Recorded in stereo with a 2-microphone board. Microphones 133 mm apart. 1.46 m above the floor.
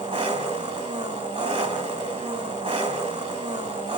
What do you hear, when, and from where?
0.0 s an engine running: 55° right (ahead or behind), 4 m